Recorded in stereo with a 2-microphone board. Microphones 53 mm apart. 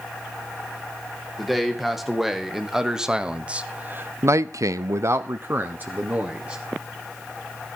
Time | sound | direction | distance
1.4 | a man speaking | centre (ahead or behind) | 2.5 m